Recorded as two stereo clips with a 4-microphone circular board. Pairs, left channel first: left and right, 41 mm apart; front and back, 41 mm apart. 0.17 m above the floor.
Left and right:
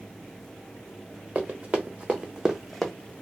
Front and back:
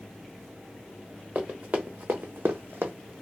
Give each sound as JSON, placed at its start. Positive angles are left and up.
{"t": 1.4, "sound": "running footsteps", "azimuth_deg": -135, "distance_m": 1.1}